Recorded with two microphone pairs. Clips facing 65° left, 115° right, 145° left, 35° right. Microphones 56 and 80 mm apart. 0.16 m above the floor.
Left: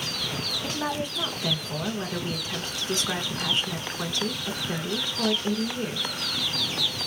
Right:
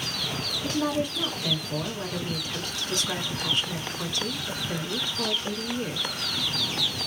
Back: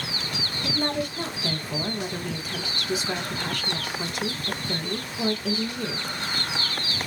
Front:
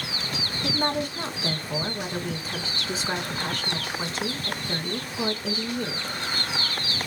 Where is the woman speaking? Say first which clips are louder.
Right 4 dB, front 1 dB; 10° left, 1.4 m.